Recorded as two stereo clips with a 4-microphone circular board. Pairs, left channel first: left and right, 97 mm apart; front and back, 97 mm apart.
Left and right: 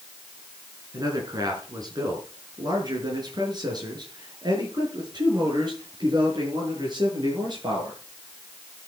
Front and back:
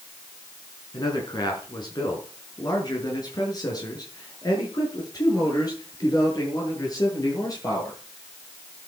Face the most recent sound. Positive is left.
turn(degrees=-50)